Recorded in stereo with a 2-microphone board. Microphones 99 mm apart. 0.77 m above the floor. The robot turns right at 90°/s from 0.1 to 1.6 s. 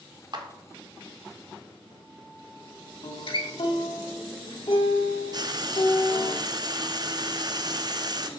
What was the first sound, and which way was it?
A clap, 50° right (ahead or behind).